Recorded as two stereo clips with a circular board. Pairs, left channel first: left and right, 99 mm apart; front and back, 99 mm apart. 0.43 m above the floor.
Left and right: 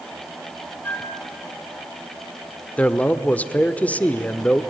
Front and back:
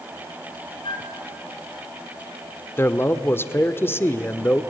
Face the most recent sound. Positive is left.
turn(degrees=30)